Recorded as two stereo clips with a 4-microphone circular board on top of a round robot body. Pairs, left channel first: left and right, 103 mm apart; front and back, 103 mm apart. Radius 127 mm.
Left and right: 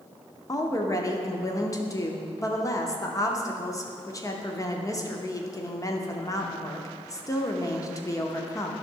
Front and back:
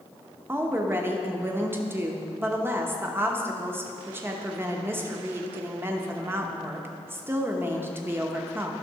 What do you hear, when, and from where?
0.5 s a woman speaking: 125° left, 1.0 m